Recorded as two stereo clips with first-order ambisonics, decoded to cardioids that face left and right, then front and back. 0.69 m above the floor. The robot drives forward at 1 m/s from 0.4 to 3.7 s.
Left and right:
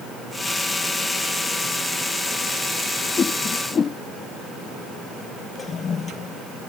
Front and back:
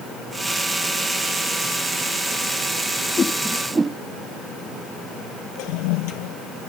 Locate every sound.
3.2 s a whoosh: 45° left; by 4.0 s 120° left
5.6 s a toilet flushing: 20° left